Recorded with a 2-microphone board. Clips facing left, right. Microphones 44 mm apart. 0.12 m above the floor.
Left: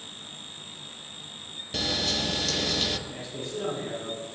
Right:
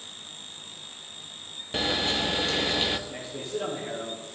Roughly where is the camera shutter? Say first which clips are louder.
Right 2 dB; right.